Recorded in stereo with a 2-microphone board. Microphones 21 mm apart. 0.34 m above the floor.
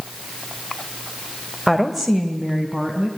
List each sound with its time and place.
1.7 s a woman speaking: centre (ahead or behind), 1.3 m; by 3.1 s 25° right (ahead or behind), 3 m